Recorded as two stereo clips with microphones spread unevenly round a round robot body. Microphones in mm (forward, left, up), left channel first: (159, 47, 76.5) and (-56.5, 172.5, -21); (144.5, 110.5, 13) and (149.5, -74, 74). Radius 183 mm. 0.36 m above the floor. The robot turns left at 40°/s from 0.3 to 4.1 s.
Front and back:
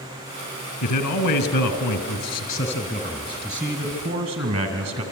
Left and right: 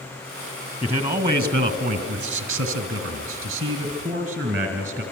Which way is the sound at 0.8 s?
20° right.